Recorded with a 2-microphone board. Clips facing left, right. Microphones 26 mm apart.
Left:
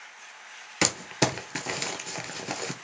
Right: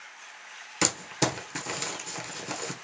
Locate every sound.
0.8 s crumpling: 20° left (ahead or behind), 0.7 m